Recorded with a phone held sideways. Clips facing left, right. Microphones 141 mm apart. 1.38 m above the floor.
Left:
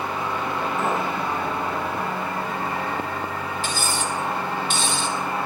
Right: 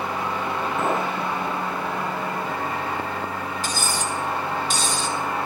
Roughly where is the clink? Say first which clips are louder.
Right 2 dB; right.